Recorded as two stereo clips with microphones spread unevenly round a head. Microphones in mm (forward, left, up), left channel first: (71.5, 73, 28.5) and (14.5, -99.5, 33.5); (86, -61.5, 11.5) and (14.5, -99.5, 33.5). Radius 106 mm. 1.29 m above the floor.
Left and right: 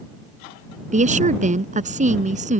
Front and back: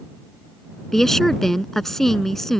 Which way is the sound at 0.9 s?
60° right.